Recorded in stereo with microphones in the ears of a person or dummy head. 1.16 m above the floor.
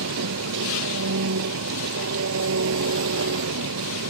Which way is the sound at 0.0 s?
75° right (ahead or behind).